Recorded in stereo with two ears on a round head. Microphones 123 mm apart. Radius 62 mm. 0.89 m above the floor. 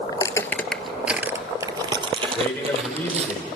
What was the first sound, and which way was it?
Footsteps, 30° left (ahead or behind).